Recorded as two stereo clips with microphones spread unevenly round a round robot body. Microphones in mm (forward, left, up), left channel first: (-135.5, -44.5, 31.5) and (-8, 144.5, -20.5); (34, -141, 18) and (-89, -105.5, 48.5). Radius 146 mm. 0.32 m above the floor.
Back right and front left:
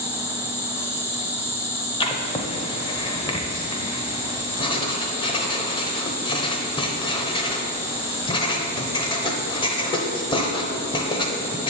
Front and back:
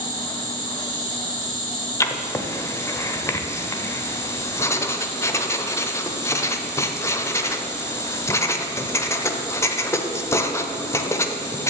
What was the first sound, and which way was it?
An insect, 150° left.